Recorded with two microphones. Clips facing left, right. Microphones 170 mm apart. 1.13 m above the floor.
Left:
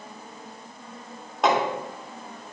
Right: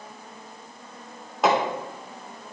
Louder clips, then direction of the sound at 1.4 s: Right 1 dB; centre (ahead or behind).